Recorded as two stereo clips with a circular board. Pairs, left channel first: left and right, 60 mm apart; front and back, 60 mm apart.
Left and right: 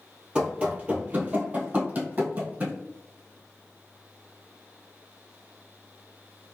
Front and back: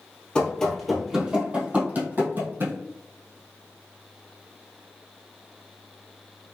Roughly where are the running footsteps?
Ahead right.